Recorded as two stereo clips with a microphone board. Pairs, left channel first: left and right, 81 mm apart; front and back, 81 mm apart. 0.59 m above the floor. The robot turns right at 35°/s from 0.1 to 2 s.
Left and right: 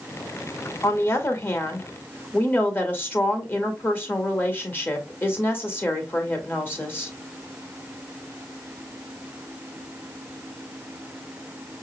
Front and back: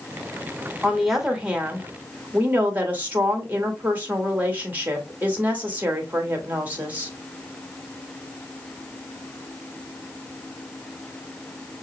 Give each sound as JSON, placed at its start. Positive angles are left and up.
{"t": 0.8, "sound": "a woman speaking", "azimuth_deg": 90, "distance_m": 1.4}